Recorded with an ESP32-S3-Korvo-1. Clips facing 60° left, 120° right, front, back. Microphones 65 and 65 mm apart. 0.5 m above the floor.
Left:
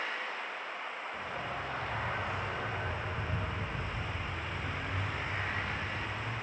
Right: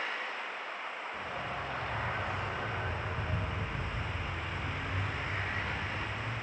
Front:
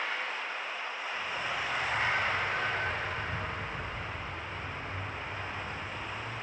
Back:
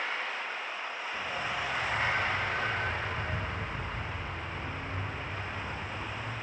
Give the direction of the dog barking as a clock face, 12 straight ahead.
7 o'clock.